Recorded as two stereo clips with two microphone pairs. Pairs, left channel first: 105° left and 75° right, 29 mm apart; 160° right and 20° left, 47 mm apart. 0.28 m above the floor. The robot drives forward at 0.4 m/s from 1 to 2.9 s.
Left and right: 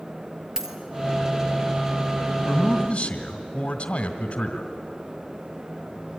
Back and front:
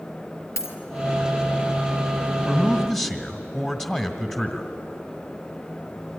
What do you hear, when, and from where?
0.6 s a dropped coin: 145° right, 2.5 m
2.4 s a man speaking: 125° left, 1.5 m; by 4.7 s 135° left, 1.6 m